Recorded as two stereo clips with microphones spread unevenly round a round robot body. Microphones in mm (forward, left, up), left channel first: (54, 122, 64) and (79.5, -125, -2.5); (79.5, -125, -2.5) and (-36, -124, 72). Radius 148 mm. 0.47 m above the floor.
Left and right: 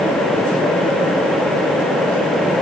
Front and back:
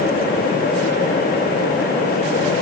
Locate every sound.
Only background noise.